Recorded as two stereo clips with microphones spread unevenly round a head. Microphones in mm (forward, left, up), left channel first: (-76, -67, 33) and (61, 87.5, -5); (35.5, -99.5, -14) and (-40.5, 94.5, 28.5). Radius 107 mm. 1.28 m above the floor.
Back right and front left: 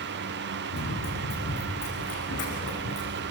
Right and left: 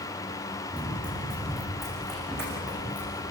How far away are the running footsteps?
About 6.5 m.